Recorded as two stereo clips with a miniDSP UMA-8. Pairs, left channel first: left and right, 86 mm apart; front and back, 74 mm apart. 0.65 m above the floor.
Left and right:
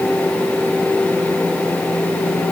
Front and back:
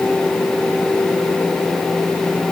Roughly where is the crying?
I don't hear crying.